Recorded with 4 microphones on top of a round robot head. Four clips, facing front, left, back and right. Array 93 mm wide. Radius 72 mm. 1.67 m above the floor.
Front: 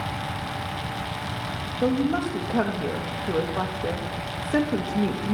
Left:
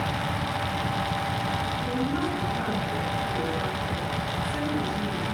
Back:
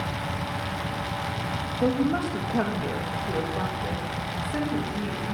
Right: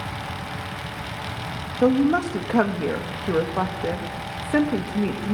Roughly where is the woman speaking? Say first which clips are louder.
Right 13 dB, front 1 dB; right.